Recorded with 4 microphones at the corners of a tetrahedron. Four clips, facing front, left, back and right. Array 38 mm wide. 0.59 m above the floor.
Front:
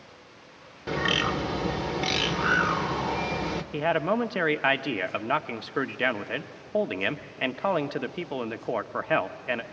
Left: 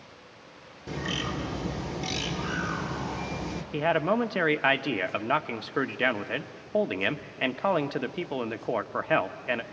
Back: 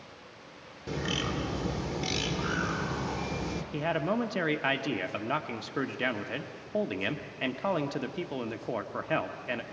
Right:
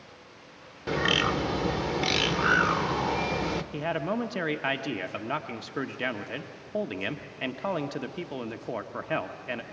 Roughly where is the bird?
Ahead right.